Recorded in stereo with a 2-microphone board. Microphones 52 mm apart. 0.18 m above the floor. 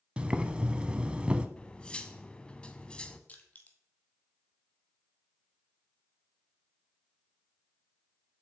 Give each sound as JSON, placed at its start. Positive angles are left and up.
{"t": 0.2, "sound": "boiling", "side_deg": -20, "distance_m": 0.6}
{"t": 1.6, "sound": "cutlery clinking", "side_deg": 20, "distance_m": 0.6}
{"t": 3.3, "sound": "crushing", "side_deg": 30, "distance_m": 1.1}